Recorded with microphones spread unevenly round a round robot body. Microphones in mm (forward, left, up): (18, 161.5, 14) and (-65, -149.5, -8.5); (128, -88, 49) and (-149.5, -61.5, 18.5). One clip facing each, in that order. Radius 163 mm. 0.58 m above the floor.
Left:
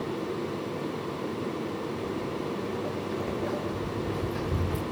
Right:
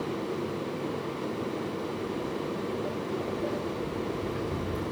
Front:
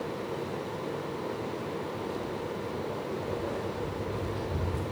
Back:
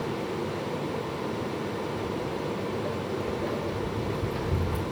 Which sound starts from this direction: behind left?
Footsteps, at 2.0 s.